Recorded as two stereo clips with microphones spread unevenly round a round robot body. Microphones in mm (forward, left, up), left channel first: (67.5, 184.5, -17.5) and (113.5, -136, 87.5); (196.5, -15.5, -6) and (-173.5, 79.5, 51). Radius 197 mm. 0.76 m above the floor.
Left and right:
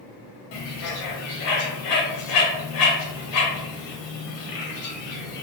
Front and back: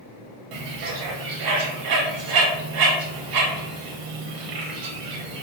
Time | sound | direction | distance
0.5 | a bird | 125° left | 0.7 m